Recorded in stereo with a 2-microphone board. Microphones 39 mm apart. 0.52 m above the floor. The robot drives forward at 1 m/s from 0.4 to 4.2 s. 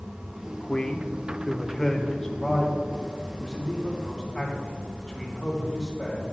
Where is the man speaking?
15° left (ahead or behind), 0.7 m; by 6.2 s 5° left (ahead or behind), 3.5 m.